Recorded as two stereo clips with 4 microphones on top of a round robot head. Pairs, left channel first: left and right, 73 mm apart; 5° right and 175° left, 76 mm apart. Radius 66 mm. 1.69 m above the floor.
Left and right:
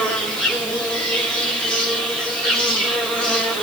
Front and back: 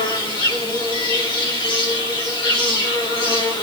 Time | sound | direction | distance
0.0 | an insect | 10° left | 5.5 m